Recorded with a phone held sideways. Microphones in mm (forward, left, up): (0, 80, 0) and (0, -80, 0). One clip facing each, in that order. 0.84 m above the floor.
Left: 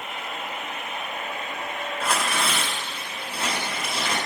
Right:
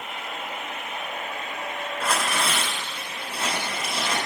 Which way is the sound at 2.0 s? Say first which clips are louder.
Even; 5° left (ahead or behind).